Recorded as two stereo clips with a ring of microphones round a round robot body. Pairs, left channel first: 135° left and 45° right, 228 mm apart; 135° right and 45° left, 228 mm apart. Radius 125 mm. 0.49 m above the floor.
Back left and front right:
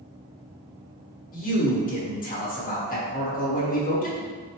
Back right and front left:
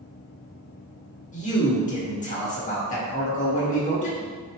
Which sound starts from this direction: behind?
A man speaking, at 1.3 s.